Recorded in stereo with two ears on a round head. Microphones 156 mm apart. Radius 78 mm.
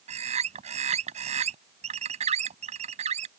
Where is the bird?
40° right (ahead or behind).